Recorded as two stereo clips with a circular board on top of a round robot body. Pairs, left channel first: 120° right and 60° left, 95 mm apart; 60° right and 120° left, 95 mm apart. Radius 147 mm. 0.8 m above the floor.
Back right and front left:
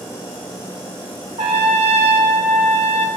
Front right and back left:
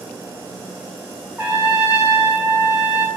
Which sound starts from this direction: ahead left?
A trumpet, at 1.4 s.